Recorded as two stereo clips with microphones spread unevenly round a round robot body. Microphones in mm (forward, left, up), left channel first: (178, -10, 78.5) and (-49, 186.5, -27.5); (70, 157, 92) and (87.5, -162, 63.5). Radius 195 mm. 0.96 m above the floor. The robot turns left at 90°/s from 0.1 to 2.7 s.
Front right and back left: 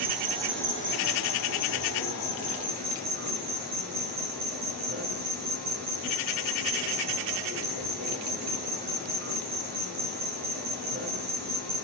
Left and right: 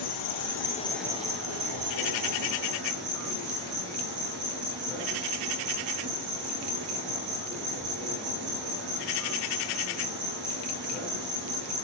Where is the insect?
85° left, 4 m; by 11.8 s 150° right, 4 m.